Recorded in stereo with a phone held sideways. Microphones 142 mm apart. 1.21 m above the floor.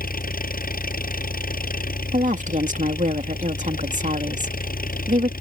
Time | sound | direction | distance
0.0 | an engine running | 70° left (ahead or behind) | ?
2.1 | a woman speaking | 55° right (ahead or behind) | ?